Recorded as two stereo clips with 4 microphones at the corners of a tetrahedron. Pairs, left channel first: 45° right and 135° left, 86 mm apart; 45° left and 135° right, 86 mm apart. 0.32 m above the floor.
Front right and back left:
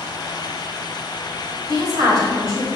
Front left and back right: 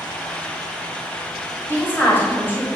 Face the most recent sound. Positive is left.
turn(degrees=100)